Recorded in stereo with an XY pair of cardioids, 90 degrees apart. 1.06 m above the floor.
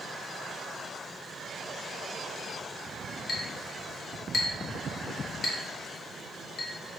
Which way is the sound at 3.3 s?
55° left.